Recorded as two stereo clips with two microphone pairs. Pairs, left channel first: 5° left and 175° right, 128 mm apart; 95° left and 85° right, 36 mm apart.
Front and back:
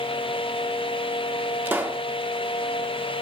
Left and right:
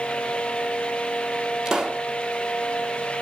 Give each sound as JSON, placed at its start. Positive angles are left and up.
{"t": 1.6, "sound": "a pop", "azimuth_deg": -130, "distance_m": 1.3}